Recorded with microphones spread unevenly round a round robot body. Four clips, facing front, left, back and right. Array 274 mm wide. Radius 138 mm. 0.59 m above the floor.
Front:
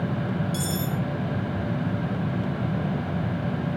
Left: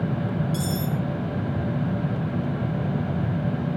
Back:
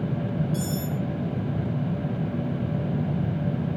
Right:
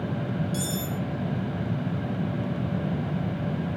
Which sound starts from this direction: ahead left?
Cutlery clinking, at 0.5 s.